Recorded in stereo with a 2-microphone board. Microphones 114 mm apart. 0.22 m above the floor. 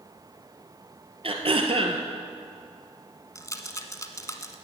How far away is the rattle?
About 0.9 m.